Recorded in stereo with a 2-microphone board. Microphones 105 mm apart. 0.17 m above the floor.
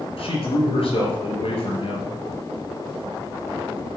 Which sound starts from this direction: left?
A man speaking, at 0.2 s.